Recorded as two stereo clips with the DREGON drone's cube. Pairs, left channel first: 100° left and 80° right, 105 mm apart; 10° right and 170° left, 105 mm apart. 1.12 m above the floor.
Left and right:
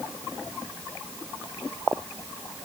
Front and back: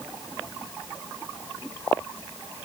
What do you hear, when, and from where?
Only background noise.